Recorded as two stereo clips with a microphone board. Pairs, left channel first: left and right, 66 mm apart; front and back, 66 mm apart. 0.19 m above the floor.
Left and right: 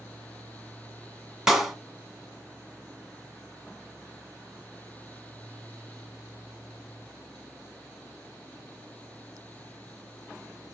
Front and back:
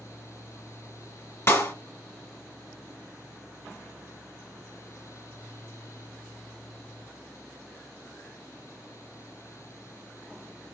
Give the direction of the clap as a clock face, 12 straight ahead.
12 o'clock.